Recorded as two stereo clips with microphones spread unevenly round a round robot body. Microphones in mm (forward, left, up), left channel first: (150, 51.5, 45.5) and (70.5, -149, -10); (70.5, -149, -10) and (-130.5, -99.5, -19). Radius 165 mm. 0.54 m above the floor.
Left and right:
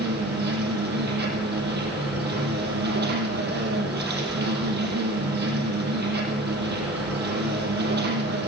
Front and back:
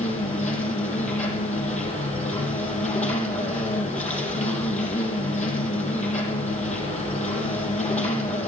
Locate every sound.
0.0 s an insect: 70° right, 4 m